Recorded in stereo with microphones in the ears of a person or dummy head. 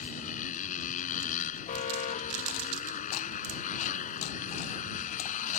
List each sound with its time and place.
0.0 s a motorcycle: 45° left (ahead or behind)
1.7 s an alarm: 40° left (ahead or behind)